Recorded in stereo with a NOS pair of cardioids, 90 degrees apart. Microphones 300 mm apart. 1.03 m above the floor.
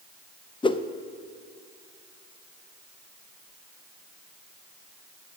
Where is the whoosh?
15° left, 0.6 m.